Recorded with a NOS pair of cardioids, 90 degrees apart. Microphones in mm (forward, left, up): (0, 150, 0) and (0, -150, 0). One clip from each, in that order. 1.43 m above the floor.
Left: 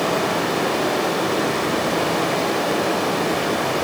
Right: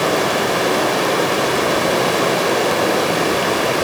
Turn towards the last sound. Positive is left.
turn(degrees=-50)